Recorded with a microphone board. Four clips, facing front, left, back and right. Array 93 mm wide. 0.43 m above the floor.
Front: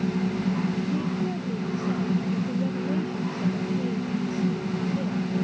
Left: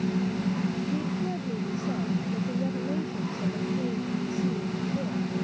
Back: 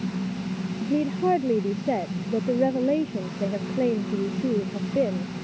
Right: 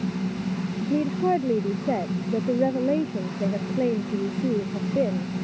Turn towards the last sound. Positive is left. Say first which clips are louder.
# right 6 dB, back 4 dB
turn(degrees=-140)